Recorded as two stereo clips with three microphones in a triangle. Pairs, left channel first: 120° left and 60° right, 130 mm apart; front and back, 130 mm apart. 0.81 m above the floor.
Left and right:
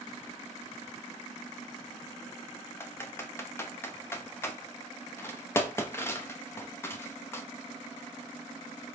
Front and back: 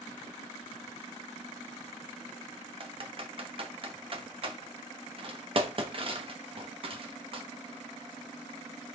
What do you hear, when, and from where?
2.8 s typing on a keyboard: 175° right, 0.7 m